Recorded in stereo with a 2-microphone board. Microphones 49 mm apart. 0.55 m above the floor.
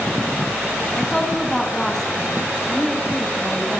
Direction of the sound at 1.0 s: 10° left (ahead or behind).